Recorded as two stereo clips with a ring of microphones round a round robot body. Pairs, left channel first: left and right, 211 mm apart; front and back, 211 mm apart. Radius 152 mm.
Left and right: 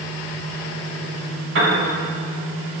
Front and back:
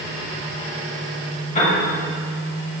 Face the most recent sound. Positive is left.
turn(degrees=-65)